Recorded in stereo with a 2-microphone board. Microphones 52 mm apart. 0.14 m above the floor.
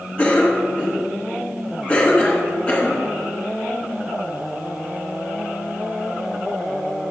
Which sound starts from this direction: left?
A cough, at 0.2 s.